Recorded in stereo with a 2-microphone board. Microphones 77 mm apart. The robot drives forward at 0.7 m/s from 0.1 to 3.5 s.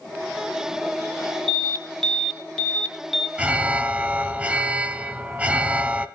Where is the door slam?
I don't hear a door slam.